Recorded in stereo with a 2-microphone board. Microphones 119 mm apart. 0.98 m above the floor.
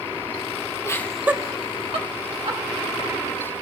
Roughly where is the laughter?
Left.